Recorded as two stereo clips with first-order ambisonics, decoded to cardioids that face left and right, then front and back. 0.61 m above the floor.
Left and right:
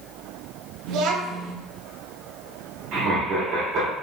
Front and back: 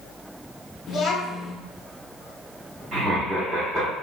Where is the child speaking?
55° right, 0.5 m.